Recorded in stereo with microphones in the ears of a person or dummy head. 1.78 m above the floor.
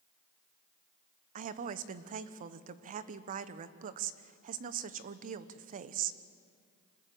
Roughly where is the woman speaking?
Right.